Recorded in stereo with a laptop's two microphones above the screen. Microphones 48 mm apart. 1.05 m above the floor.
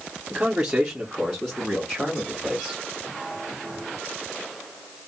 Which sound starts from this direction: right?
A man speaking, at 0.3 s.